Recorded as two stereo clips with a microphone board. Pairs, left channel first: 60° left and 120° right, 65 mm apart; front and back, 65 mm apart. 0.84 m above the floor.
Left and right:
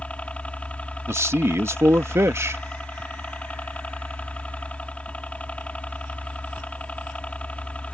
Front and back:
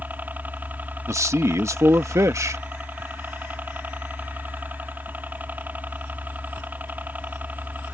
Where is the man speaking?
155° right.